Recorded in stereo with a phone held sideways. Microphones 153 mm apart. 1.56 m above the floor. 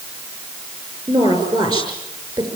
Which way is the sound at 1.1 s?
30° right (ahead or behind).